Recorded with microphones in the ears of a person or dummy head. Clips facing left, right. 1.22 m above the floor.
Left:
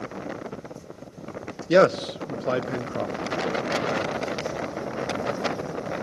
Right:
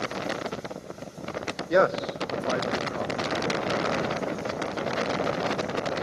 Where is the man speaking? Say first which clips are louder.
Left 4 dB; 40° left (ahead or behind), 0.7 m.